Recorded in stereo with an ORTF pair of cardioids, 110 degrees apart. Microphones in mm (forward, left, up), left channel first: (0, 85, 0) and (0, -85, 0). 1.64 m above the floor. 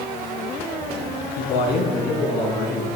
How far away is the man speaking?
About 4 m.